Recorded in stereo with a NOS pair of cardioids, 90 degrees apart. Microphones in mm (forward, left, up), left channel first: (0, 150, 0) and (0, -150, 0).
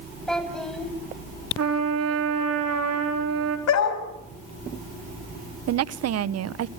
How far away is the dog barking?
About 4 m.